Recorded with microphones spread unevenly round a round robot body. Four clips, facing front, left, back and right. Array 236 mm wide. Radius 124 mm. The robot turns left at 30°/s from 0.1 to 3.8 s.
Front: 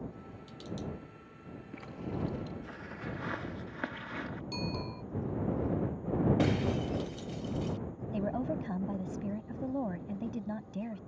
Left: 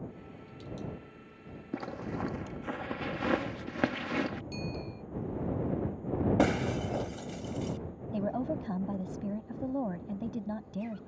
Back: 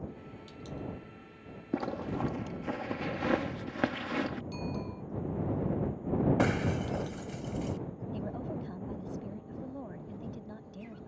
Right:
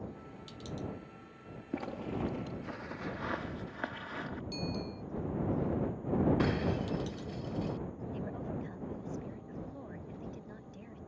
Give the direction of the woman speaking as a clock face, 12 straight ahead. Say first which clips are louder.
Left 10 dB, front 6 dB; 10 o'clock.